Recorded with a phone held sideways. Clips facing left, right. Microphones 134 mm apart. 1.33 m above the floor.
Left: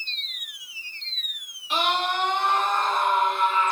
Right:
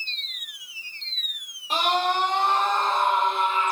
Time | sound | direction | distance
1.7 | a scream | 45° right (ahead or behind) | 2 m